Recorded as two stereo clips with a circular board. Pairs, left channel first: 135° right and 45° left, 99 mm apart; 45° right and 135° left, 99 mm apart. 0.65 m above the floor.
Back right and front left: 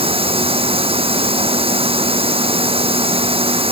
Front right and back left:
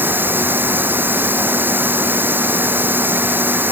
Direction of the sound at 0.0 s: 65° left.